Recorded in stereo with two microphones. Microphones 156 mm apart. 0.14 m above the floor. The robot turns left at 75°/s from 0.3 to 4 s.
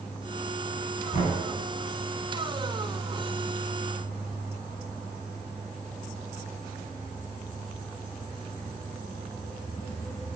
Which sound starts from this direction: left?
Knocking, at 1.1 s.